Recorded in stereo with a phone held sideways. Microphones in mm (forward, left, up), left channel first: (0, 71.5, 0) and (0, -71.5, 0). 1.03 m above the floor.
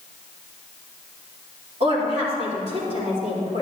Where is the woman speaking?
45° right (ahead or behind), 2.5 m.